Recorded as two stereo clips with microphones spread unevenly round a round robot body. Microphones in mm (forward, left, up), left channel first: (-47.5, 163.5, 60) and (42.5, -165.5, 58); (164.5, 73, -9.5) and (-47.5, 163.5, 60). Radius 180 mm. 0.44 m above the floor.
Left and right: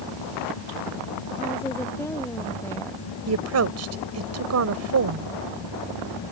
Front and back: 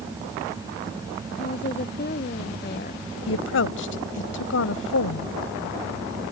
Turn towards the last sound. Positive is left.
turn(degrees=-30)